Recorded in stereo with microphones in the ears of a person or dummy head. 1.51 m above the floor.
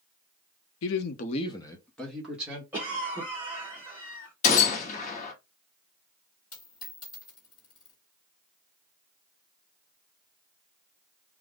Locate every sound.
0.8 s a man speaking: 75° left (ahead or behind), 0.6 m; by 2.6 s 5° right (ahead or behind), 1.5 m
2.7 s a cough: 10° right (ahead or behind), 0.9 m
4.4 s a gunshot: 40° left (ahead or behind), 0.9 m
6.5 s a dropped coin: 20° left (ahead or behind), 1.8 m